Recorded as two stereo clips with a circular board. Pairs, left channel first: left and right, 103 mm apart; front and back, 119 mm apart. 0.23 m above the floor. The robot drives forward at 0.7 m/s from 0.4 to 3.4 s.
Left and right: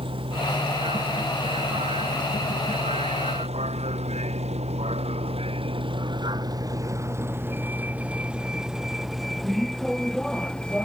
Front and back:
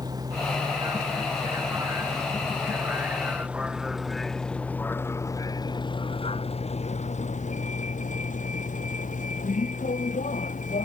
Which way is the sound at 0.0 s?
120° right.